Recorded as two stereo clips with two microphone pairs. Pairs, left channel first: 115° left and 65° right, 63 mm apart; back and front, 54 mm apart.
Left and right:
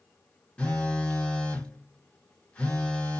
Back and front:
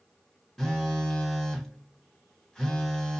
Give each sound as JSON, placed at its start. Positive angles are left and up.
{"t": 0.6, "sound": "a phone buzzing", "azimuth_deg": 120, "distance_m": 1.1}